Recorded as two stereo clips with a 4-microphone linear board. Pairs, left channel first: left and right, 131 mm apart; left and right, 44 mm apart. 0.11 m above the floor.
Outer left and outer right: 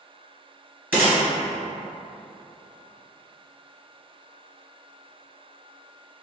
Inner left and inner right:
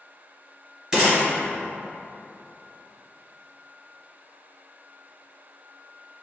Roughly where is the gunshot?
Centre.